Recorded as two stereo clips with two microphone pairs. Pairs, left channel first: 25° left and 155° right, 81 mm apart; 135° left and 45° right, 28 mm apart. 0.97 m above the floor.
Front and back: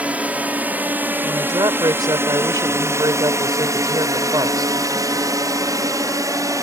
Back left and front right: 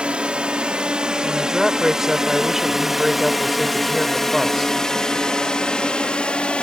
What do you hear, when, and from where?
0.0 s a drone: 90° right; by 6.7 s 170° left
1.2 s a woman speaking: 125° right